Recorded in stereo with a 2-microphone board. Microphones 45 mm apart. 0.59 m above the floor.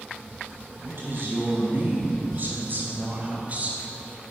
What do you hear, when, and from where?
0.8 s a woman speaking: 55° right (ahead or behind), 4 m; by 4.3 s 25° right (ahead or behind), 1.6 m